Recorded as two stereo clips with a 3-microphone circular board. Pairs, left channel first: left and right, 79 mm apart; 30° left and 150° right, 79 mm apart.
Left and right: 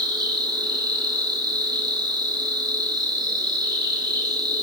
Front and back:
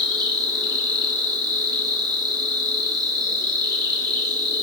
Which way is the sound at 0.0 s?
120° right.